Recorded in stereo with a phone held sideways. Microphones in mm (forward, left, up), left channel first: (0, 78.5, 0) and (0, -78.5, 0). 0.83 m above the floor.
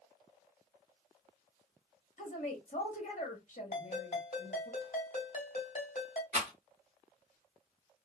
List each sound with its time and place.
2.2 s a woman speaking: 50° left (ahead or behind), 1.3 m
3.7 s a ringtone: 50° left (ahead or behind), 1.5 m
6.3 s a rattle: 50° right (ahead or behind), 0.8 m